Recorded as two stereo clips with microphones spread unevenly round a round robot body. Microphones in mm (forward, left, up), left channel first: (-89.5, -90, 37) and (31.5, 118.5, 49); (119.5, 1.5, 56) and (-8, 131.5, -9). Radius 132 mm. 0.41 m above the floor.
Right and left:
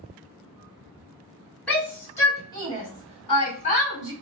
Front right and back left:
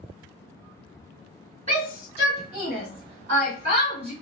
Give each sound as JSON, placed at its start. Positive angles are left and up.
{"t": 1.7, "sound": "a shout", "azimuth_deg": 160, "distance_m": 2.0}